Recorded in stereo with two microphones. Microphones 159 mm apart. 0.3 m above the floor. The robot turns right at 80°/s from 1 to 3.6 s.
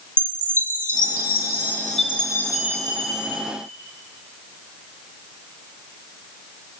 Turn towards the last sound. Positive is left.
turn(degrees=-95)